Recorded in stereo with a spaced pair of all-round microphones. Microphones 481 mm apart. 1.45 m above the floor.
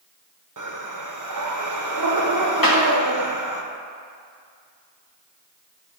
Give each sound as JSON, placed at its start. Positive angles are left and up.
{"t": 0.6, "sound": "breathing", "side_deg": -40, "distance_m": 0.6}
{"t": 2.6, "sound": "a clap", "side_deg": 45, "distance_m": 1.1}